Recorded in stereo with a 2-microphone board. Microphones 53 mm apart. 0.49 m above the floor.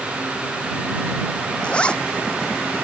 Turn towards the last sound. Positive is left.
turn(degrees=20)  # may be behind; listen again after turning